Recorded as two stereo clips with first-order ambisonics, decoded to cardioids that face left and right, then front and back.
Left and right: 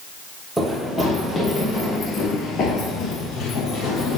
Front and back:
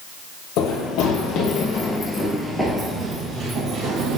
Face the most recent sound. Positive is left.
turn(degrees=135)